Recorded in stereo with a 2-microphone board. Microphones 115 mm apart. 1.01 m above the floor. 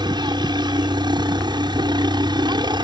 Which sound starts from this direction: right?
A helicopter, at 0.0 s.